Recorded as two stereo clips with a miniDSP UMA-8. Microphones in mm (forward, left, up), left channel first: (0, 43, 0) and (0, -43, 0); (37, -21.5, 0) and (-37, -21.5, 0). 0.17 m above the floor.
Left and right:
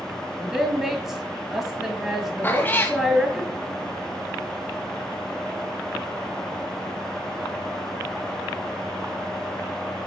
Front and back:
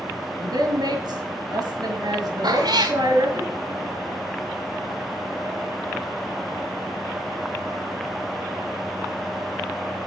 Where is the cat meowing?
160° left, 2 m.